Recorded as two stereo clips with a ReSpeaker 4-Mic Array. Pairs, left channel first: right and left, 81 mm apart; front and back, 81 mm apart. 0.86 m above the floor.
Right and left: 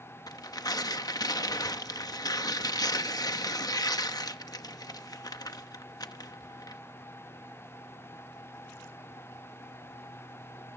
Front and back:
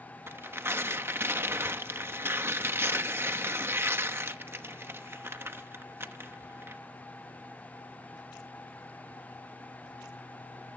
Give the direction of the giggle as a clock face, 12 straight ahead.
No giggle in this recording.